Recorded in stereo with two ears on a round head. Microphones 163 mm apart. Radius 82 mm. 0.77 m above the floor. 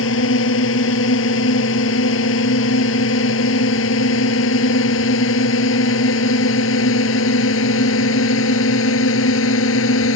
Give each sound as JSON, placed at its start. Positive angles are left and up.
{"t": 0.0, "sound": "a drone", "side_deg": 80}